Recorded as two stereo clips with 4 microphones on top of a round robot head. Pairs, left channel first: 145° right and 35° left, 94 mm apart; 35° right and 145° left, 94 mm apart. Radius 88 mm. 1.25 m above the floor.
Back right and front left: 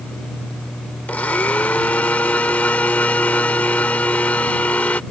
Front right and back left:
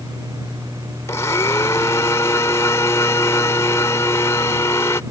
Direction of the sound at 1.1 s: 80° right.